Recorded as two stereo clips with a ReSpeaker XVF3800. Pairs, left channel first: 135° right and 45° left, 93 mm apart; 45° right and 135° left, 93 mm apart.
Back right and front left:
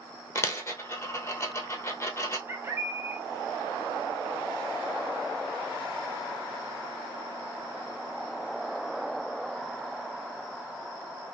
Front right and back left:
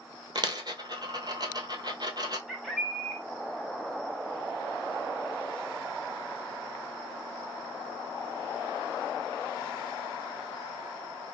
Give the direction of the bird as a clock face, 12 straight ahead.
10 o'clock.